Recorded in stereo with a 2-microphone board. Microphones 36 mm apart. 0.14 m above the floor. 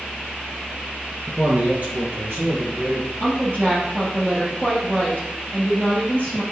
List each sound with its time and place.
1.3 s a man speaking: 30° right (ahead or behind), 1.3 m; by 3.1 s 60° right (ahead or behind), 3.5 m
3.2 s a woman speaking: 50° right (ahead or behind), 3.5 m